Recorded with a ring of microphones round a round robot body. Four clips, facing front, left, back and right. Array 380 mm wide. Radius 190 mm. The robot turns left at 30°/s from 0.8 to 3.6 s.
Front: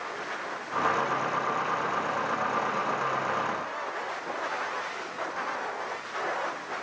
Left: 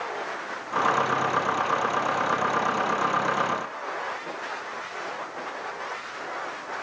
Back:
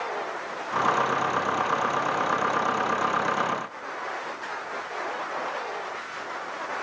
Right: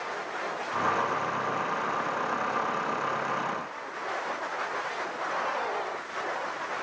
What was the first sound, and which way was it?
Only background noise.